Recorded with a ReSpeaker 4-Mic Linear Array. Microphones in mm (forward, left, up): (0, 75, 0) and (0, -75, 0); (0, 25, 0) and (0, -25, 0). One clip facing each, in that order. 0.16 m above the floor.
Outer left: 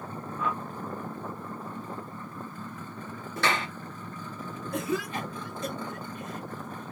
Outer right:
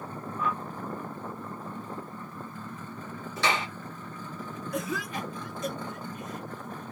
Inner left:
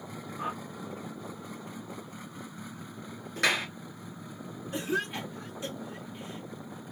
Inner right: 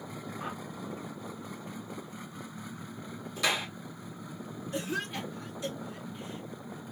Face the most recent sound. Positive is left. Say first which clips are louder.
# outer left 3 dB, inner left 3 dB
turn(degrees=30)  # may be behind; listen again after turning